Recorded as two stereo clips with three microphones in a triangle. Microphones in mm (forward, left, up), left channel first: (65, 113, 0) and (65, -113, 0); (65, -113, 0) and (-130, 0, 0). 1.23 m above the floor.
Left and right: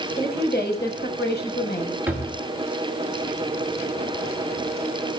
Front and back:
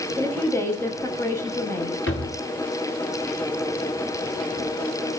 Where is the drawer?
10° right, 4.5 m.